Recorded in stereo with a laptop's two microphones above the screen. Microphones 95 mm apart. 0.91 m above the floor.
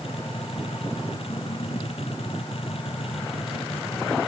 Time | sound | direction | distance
0.0 | a machine running | 85° left | ?